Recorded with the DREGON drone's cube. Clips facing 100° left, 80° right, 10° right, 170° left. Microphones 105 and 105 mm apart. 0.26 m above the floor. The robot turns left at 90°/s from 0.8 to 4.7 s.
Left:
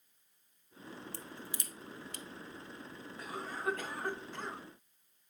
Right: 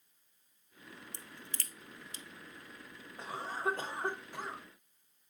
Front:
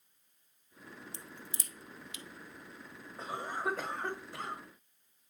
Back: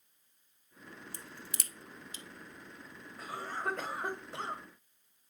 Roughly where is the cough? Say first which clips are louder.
Right 3 dB, front 2 dB; ahead right.